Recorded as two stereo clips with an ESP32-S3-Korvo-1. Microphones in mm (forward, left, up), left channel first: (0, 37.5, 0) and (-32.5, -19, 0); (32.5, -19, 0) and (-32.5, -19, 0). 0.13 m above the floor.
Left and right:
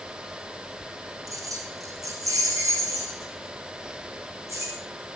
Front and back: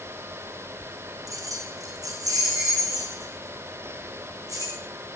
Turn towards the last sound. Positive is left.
turn(degrees=-155)